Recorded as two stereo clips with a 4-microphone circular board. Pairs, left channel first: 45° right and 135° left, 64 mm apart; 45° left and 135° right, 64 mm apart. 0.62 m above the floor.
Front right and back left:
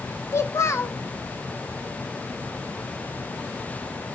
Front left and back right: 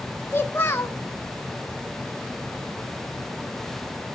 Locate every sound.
0.3 s a child speaking: 5° right, 1.1 m